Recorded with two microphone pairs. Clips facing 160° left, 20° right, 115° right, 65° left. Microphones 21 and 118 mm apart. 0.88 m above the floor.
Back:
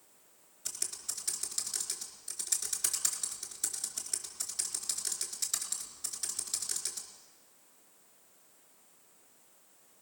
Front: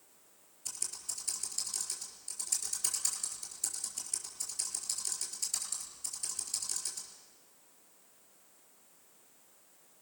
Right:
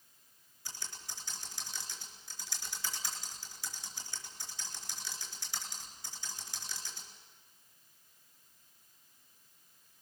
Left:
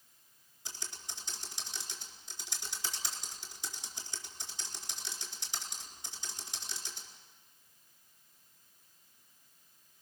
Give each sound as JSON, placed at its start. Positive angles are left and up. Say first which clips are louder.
{"t": 0.7, "sound": "typing on a keyboard", "louder": "back 1 dB, left 1 dB", "azimuth_deg": 130, "distance_m": 4.0}